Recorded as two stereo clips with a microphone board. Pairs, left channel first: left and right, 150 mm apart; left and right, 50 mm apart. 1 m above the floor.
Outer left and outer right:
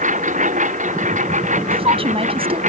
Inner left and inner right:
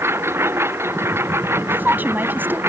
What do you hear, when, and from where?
0.0 s a lawn mower: 55° right (ahead or behind)
1.7 s a woman speaking: 40° right (ahead or behind)